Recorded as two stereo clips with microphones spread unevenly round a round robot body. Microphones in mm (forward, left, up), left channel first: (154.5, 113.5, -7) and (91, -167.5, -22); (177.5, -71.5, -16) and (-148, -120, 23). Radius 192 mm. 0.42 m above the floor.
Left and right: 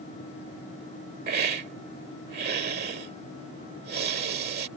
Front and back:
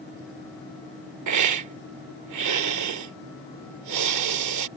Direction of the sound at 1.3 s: 155° right.